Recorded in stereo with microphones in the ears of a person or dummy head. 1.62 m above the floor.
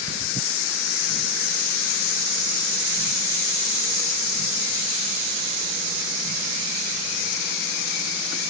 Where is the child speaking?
No child speaking in this recording.